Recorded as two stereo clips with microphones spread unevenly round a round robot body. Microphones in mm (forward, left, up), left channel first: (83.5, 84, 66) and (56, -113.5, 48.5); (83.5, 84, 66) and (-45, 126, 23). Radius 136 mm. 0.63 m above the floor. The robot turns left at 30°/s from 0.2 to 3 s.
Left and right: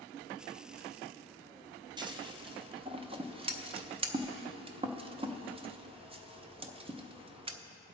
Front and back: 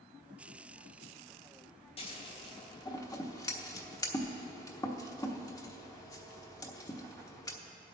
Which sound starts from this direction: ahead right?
Scissors, at 2.0 s.